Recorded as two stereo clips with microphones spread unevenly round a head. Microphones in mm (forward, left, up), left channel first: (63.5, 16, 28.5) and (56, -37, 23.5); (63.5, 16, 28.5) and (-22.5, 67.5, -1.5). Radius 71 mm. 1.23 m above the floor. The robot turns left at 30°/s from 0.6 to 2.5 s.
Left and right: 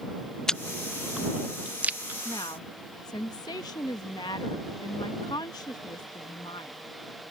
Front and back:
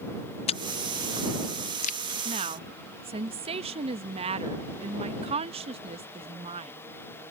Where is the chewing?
Straight ahead; by 2.1 s 45° right.